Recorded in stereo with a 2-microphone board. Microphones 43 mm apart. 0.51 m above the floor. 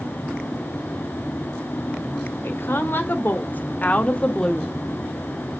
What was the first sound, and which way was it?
A woman speaking, 60° left (ahead or behind).